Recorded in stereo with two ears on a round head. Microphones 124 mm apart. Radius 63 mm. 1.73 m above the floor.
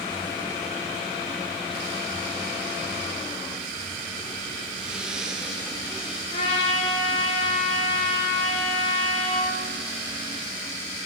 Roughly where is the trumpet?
Left.